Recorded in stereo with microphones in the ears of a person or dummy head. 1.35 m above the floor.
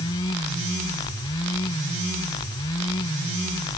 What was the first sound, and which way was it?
Only background noise.